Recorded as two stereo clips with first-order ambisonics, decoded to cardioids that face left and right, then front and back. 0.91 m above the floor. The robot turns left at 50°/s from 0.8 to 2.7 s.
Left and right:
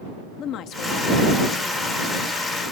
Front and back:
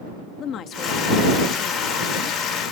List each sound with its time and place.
0.4 s a woman speaking: 50° left; by 2.4 s 30° right